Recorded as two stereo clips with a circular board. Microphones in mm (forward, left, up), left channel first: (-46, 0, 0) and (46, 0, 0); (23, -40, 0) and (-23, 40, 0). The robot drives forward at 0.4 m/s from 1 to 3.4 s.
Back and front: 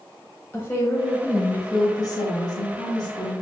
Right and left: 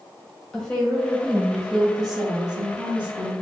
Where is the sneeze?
I don't hear a sneeze.